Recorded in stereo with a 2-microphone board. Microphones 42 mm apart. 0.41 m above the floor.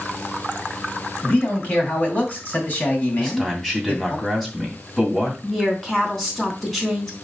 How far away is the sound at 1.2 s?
About 3 m.